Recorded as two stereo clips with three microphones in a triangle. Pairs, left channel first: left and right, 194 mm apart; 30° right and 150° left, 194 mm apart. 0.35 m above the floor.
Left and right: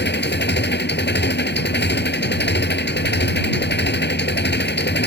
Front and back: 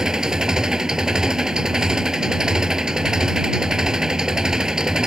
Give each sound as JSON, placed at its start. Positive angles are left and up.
{"t": 0.0, "sound": "an engine running", "azimuth_deg": 65}